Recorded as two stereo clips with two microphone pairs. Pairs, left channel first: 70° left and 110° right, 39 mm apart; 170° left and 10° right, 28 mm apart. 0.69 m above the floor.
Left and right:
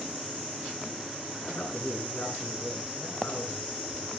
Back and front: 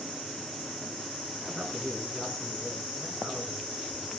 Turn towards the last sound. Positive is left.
turn(degrees=80)